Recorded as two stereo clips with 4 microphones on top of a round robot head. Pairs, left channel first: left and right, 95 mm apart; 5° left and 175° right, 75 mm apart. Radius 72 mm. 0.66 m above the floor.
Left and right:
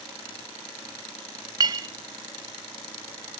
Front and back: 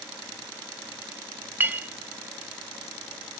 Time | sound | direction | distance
1.6 | a clink | 115° right | 0.6 m